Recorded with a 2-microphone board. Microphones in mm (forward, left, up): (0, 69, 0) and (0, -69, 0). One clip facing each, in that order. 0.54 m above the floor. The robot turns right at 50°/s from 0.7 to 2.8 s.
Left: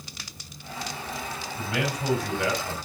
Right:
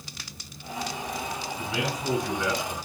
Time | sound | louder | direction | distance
1.6 | a man speaking | left 3 dB | 55° left | 5 m